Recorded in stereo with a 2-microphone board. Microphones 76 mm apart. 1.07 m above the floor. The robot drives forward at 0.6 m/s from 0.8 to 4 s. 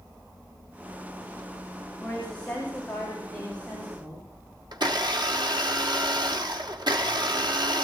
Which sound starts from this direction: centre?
A woman speaking, at 2.0 s.